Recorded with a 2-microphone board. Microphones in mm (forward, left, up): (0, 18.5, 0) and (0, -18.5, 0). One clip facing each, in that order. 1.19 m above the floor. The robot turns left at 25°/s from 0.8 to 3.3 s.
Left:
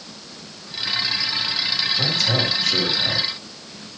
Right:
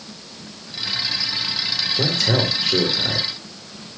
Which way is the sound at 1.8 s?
125° right.